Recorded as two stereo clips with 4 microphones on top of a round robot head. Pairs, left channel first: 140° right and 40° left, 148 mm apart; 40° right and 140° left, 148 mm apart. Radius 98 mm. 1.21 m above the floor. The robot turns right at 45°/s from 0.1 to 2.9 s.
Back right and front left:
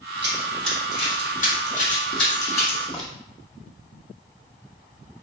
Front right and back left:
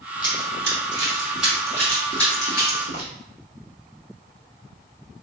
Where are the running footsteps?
75° left, 1.3 m; by 3.1 s 50° right, 2.5 m.